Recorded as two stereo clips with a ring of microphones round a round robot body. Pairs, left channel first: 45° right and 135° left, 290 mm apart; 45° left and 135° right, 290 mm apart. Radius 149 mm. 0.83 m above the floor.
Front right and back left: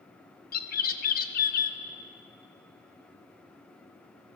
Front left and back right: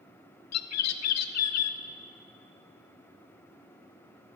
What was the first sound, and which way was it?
A bird, 15° left.